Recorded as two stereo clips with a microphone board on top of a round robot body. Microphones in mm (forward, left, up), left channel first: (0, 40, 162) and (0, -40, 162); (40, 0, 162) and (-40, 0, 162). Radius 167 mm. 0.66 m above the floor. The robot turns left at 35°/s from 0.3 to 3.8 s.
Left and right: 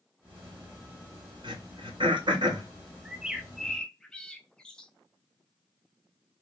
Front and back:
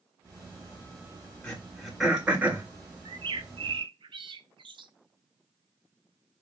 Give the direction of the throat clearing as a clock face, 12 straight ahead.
2 o'clock.